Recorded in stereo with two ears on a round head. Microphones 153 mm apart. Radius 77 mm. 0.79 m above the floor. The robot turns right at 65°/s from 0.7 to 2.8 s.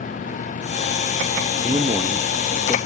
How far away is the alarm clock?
I don't hear an alarm clock.